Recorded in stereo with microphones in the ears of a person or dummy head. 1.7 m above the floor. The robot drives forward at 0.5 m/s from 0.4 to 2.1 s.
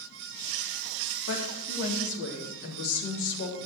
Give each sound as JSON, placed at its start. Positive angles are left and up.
{"t": 1.3, "sound": "a woman speaking", "side_deg": 75, "distance_m": 3.0}